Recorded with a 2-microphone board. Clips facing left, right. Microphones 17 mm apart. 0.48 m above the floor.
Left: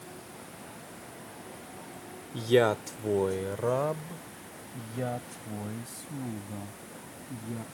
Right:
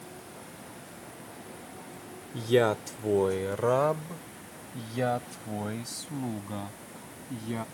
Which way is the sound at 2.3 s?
15° left (ahead or behind).